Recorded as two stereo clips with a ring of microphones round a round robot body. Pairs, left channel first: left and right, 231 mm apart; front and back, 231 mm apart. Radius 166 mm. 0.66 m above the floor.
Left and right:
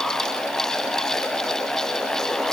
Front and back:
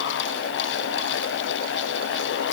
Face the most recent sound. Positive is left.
No sound to turn to.